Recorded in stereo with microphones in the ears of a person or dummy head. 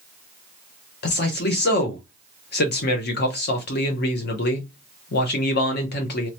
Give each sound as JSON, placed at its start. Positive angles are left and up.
{"t": 1.0, "sound": "a man speaking", "side_deg": 45, "distance_m": 0.9}